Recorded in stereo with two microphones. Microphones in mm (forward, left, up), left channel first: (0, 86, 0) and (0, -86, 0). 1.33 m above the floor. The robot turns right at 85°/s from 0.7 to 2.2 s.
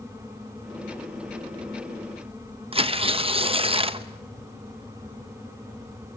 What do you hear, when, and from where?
2.7 s tearing paper: 30° right (ahead or behind), 0.8 m